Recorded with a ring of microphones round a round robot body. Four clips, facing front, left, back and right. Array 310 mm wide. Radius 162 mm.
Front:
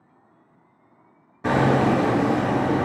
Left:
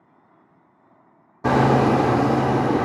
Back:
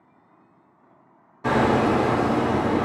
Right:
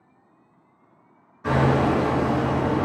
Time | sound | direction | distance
1.4 | hammering | 70° left | 0.7 m